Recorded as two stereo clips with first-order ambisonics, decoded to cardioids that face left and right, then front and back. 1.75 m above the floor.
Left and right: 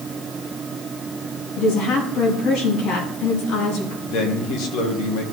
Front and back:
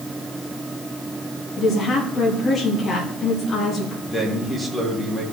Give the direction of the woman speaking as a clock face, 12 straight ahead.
10 o'clock.